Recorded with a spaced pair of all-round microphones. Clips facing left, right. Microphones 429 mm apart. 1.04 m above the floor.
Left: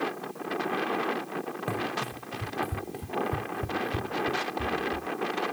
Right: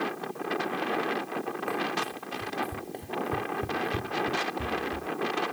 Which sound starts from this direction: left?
Running footsteps, at 1.7 s.